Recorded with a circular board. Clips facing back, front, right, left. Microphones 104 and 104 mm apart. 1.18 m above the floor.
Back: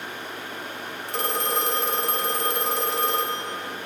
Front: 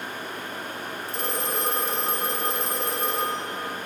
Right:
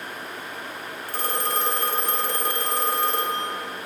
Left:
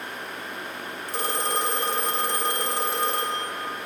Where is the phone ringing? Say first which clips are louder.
Back 4 dB, even; 160° left, 0.6 m.